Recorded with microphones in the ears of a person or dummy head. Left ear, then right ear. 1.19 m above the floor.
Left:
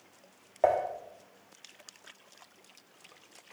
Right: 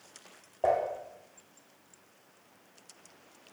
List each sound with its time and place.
0.6 s dishes clattering: 55° left (ahead or behind), 1.6 m